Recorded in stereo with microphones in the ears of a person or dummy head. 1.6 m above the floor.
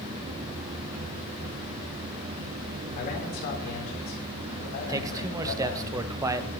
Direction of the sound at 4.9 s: 20° right (ahead or behind).